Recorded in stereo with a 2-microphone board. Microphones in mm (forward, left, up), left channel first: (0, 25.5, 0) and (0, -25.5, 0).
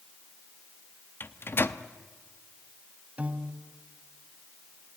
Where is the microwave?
45° left (ahead or behind), 0.7 m.